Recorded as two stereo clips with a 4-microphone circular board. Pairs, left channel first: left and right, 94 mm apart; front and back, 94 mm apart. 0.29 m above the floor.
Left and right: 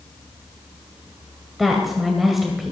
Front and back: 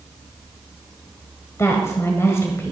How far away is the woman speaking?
About 1.6 m.